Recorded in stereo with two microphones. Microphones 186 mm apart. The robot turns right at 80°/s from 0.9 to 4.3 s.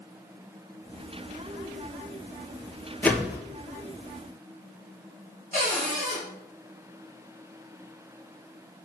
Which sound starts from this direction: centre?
A whoosh, at 3.0 s.